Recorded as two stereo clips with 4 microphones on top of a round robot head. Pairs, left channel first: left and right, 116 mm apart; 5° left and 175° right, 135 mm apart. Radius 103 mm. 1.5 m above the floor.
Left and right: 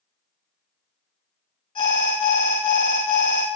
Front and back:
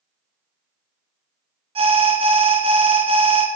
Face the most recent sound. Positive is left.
turn(degrees=140)